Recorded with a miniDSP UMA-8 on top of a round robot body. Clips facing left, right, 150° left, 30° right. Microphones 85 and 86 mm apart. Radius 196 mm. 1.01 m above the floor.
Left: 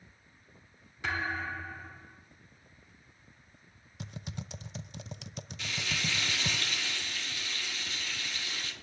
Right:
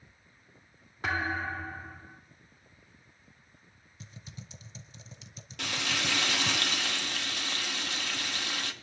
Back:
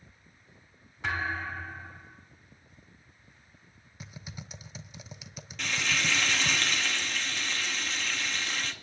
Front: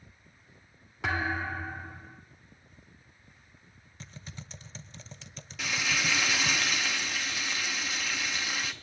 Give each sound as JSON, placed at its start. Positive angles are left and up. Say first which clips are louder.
{"t": 1.0, "sound": "a thud", "louder": "right 2 dB, front 1 dB", "azimuth_deg": -40, "distance_m": 0.6}
{"t": 4.0, "sound": "typing on a keyboard", "louder": "left 7 dB, back 1 dB", "azimuth_deg": 70, "distance_m": 0.6}
{"t": 5.6, "sound": "frying", "louder": "right 4 dB, even", "azimuth_deg": -115, "distance_m": 1.2}